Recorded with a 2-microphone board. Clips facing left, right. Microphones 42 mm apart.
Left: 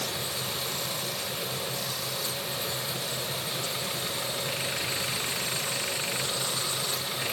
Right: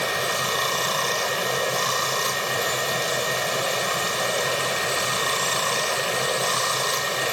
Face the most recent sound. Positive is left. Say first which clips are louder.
# right 10 dB
turn(degrees=-75)  # may be behind; listen again after turning